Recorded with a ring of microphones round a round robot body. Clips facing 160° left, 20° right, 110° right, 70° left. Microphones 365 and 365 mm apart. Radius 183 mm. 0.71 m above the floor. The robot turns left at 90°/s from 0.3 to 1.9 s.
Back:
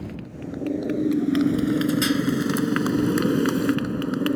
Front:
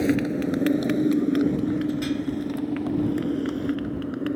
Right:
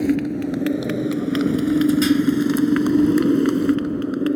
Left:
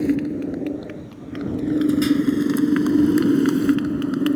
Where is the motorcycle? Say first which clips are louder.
Front 13 dB, right 1 dB; 30° right; by 4.4 s 135° left.